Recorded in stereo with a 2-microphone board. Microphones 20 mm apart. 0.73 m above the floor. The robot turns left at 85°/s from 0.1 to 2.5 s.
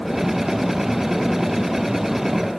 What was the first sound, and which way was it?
Only background noise.